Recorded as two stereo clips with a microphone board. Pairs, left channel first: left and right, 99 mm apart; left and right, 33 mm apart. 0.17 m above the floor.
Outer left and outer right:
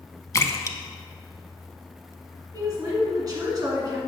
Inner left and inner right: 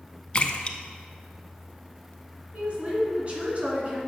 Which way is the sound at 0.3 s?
35° left (ahead or behind).